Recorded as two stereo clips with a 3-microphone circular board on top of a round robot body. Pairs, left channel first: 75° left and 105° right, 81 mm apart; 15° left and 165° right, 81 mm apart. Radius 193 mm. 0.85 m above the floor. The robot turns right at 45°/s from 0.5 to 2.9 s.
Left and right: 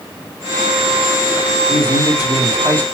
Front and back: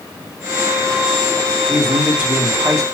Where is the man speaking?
90° left, 1.3 m; by 2.8 s 145° left, 1.3 m.